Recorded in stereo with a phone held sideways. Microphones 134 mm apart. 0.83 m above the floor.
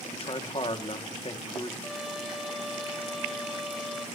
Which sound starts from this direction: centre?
A trumpet, at 1.8 s.